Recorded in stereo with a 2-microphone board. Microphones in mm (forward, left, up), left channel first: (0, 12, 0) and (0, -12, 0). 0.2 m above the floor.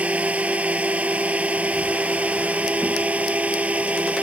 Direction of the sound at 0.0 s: 70° right (ahead or behind).